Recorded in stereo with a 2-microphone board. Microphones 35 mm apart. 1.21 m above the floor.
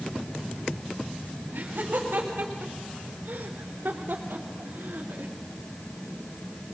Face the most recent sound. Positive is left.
turn(degrees=-70)  # may be behind; listen again after turning